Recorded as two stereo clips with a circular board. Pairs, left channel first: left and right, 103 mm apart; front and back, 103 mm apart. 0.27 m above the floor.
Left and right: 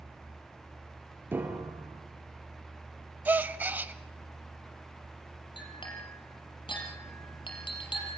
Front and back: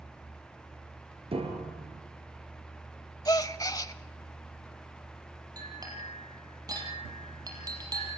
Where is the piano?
160° right, 3 m.